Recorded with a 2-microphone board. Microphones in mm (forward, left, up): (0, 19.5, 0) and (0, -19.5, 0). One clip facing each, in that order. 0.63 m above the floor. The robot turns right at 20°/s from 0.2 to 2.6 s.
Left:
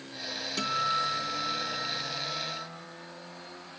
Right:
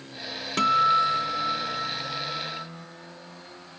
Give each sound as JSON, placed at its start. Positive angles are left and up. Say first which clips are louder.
{"t": 0.6, "sound": "a guitar", "louder": "right 9 dB", "azimuth_deg": -60, "distance_m": 0.8}